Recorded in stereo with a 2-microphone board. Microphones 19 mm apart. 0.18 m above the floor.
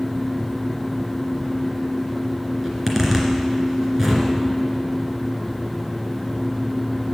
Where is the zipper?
20° right (ahead or behind), 2 m.